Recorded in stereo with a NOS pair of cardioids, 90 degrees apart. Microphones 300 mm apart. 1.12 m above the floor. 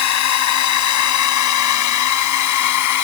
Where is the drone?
65° left; by 3.0 s 75° left.